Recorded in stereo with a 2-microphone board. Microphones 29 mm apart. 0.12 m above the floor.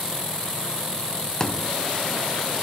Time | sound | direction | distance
1.4 | a thud | 20° left (ahead or behind) | ?